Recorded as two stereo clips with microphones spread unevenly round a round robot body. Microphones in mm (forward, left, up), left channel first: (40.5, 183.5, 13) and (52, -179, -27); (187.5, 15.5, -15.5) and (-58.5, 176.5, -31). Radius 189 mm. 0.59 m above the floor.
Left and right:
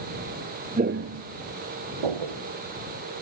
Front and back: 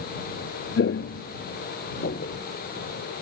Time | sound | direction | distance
0.8 | footsteps | 15° right | ?